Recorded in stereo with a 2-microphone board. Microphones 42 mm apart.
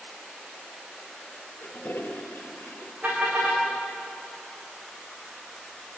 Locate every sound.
1.6 s a toilet flushing: 65° left (ahead or behind), 3.5 m
3.0 s a car horn: 35° right (ahead or behind), 9.5 m